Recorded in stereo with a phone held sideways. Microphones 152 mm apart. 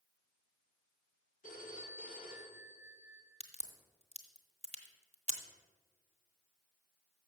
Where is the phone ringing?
75° left (ahead or behind), 1.4 m.